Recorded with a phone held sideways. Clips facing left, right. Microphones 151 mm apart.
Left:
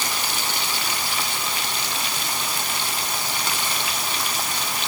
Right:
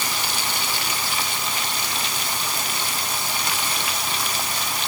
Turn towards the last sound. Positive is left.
No sound to turn to.